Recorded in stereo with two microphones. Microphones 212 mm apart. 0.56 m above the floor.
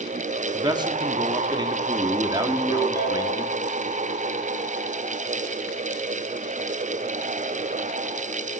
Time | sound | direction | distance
0.5 | a man speaking | 20° right (ahead or behind) | 1.3 m
2.5 | a ringtone | 15° left (ahead or behind) | 7.5 m